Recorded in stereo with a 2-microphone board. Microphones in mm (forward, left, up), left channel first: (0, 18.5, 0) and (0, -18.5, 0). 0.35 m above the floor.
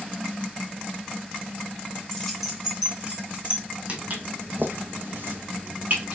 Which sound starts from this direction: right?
Footsteps, at 3.9 s.